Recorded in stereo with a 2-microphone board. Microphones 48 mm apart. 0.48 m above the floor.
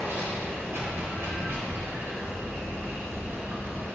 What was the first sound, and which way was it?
Running water, 60° right (ahead or behind).